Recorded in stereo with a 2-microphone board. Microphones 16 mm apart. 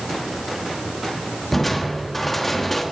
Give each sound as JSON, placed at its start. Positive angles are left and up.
{"t": 1.5, "sound": "crushing", "side_deg": 10, "distance_m": 1.5}